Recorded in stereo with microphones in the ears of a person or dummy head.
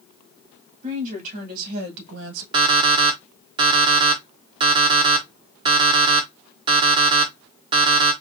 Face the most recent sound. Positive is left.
turn(degrees=-30)  # may be behind; listen again after turning